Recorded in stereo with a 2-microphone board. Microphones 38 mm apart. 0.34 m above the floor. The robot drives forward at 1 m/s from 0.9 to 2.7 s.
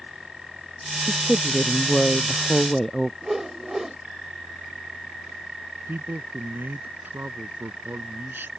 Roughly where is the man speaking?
Right.